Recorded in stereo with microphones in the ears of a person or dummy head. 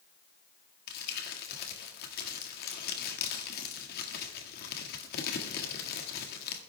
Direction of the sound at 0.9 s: 55° left (ahead or behind).